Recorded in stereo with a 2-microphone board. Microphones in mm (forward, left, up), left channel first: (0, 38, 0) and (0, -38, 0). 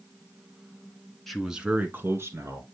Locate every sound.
1.3 s a man speaking: centre (ahead or behind), 1.6 m; by 2.6 s 40° right (ahead or behind), 2 m